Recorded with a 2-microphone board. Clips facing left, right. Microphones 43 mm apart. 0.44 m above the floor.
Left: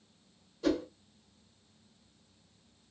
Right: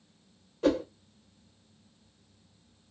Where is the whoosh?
45° right (ahead or behind), 1.2 m.